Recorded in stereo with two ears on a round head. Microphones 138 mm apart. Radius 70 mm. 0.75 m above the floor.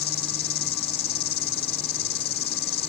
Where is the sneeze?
No sneeze in this recording.